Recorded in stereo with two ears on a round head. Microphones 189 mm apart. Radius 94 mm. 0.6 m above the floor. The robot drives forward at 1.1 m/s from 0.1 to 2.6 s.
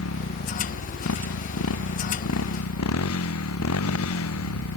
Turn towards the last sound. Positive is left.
turn(degrees=75)  # may be behind; listen again after turning